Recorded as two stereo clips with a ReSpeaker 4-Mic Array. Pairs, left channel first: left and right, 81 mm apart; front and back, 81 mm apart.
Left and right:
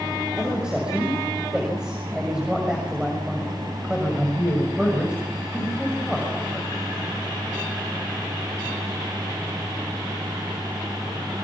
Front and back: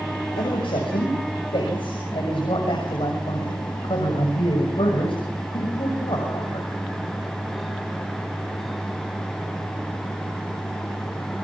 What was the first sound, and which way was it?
A man speaking, 10° right.